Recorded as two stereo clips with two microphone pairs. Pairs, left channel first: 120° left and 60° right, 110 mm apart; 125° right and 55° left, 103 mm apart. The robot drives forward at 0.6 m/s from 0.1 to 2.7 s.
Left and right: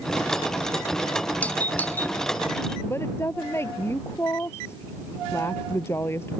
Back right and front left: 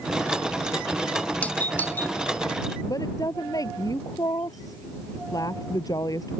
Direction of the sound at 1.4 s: Straight behind.